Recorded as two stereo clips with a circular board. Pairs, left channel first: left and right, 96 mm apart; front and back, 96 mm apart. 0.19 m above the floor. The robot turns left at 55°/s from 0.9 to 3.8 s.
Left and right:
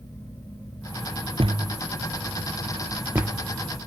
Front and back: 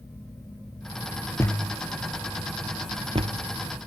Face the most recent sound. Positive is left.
turn(degrees=165)